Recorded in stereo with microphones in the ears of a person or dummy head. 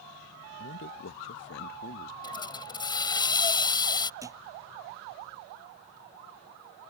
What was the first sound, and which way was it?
A man speaking, 55° left (ahead or behind).